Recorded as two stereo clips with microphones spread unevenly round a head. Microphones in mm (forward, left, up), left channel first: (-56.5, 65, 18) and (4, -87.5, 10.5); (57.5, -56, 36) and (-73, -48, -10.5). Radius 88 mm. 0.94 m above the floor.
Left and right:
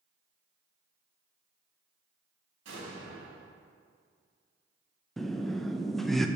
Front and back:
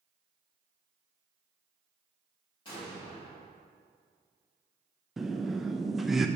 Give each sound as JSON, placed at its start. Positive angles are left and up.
{"t": 2.6, "sound": "an explosion", "azimuth_deg": -55, "distance_m": 3.5}
{"t": 5.2, "sound": "laughter", "azimuth_deg": -155, "distance_m": 0.7}